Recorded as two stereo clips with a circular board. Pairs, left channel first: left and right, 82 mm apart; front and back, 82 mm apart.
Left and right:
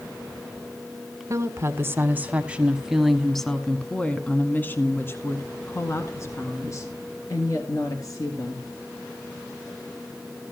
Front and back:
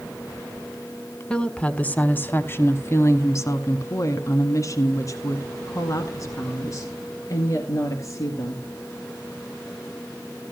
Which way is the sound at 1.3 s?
70° right.